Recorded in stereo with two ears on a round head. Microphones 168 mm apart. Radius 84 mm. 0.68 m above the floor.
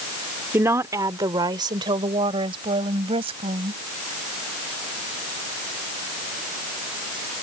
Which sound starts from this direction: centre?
A woman speaking, at 0.5 s.